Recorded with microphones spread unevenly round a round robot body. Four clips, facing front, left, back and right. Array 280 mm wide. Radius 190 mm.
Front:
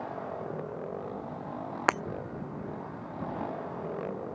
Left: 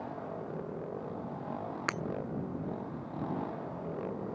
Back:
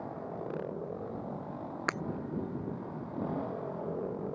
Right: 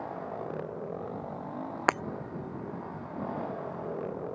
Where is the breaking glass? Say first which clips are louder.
Right 11 dB, front 8 dB; 50° right.